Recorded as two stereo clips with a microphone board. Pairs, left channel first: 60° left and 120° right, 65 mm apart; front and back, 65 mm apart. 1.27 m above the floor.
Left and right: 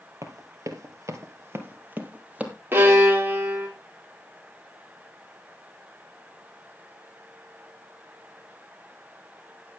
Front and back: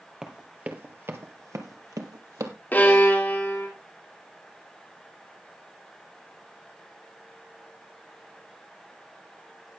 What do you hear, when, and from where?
0.2 s running footsteps: 100° right, 2.5 m; by 2.5 s 170° left, 2.5 m
2.7 s a violin: 60° right, 3.5 m